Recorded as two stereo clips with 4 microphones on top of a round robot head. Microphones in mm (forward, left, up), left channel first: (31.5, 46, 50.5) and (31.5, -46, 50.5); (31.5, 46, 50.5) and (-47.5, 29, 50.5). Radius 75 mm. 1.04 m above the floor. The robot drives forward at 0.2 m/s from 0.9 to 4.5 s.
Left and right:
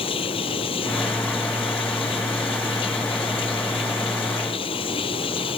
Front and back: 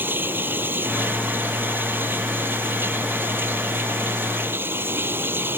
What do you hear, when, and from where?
0.0 s running water: 125° left; by 5.6 s 130° left